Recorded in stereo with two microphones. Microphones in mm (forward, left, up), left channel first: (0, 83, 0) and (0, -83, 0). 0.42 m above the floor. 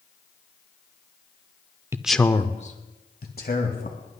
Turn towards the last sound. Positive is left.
turn(degrees=70)  # may be behind; listen again after turning